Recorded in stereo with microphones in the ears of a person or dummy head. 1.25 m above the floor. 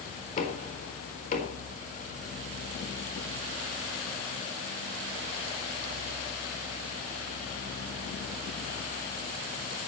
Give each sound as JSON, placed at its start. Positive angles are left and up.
{"t": 0.4, "sound": "knocking", "side_deg": 45, "distance_m": 4.5}